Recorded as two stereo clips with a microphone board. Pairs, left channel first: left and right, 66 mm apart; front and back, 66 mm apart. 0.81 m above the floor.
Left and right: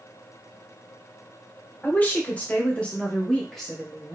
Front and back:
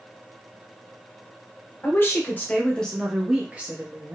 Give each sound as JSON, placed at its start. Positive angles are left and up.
{"t": 1.8, "sound": "a woman speaking", "azimuth_deg": 35, "distance_m": 1.0}